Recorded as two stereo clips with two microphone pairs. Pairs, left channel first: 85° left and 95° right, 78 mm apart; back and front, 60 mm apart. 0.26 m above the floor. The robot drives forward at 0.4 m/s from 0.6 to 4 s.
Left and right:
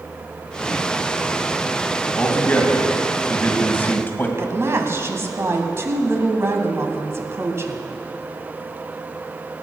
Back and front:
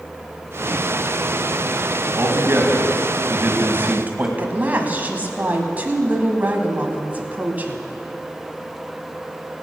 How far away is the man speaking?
About 2.5 m.